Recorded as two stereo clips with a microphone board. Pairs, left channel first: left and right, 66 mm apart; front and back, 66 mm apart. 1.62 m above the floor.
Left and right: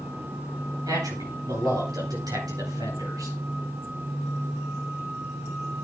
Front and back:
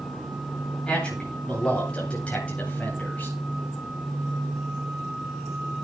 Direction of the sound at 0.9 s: 75° right.